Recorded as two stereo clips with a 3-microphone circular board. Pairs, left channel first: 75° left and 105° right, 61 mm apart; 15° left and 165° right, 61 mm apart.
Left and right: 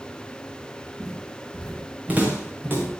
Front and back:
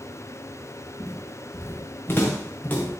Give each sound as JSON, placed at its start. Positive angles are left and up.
{"t": 1.0, "sound": "footsteps", "azimuth_deg": -25, "distance_m": 6.0}